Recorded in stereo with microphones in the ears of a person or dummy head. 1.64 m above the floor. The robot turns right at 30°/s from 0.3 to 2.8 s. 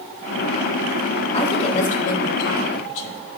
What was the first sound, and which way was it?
A woman speaking, 35° left.